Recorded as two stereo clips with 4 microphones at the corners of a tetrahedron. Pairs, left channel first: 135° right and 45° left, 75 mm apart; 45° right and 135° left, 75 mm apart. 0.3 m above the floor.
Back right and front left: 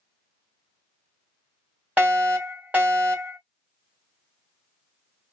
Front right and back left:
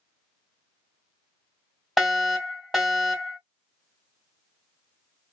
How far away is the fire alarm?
About 1.9 m.